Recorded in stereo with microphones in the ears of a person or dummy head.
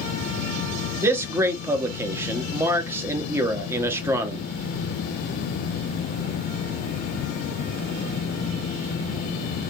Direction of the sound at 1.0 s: 10° right (ahead or behind).